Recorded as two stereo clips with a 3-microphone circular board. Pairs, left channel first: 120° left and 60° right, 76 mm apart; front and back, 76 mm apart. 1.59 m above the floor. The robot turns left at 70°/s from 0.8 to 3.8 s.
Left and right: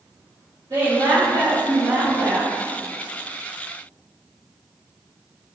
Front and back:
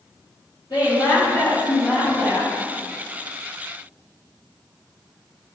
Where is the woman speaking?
20° right, 2.0 m; by 2.5 s 140° right, 2.0 m.